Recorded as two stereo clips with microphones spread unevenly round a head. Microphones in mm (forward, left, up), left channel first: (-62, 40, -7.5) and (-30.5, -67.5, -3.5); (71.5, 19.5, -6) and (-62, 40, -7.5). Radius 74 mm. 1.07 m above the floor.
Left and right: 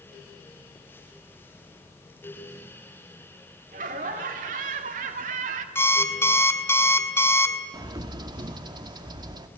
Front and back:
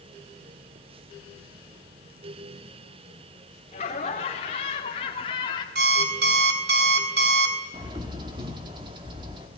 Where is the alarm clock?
175° left, 2.5 m.